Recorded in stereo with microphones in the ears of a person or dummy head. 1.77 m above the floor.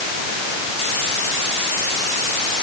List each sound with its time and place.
Only background noise.